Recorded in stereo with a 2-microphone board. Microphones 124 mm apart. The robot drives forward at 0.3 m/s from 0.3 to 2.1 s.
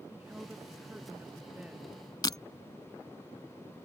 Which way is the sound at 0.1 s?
10° right (ahead or behind).